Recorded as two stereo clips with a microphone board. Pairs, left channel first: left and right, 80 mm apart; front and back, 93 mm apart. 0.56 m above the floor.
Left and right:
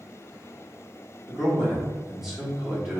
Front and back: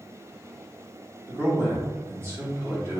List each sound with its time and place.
1.3 s a man speaking: 175° right, 1.2 m